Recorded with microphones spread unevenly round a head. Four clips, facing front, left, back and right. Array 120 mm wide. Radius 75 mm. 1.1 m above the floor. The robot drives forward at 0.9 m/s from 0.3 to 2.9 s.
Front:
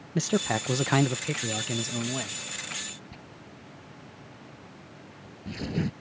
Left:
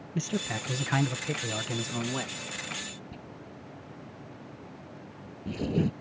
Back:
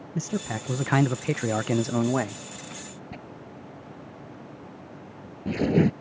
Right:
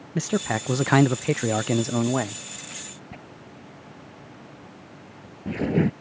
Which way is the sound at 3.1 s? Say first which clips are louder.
Right 2 dB, back 6 dB; 165° right.